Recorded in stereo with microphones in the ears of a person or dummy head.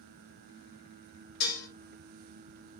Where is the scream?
I don't hear a scream.